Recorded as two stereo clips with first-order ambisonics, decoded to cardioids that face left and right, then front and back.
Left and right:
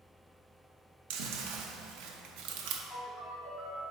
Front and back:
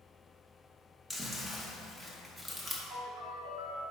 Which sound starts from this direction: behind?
A ringtone, at 2.9 s.